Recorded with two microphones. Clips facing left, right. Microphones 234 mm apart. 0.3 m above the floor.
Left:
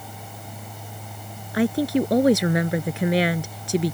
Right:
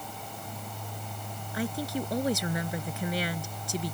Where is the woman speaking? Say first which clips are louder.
Left 12 dB; 75° left (ahead or behind).